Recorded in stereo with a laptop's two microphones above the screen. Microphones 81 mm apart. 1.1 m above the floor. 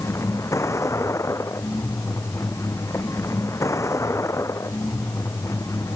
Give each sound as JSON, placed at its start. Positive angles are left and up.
{"t": 0.0, "sound": "a vehicle", "side_deg": 40}